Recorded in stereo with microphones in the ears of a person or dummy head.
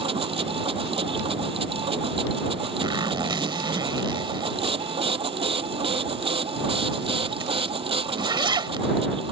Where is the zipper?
25° right (ahead or behind).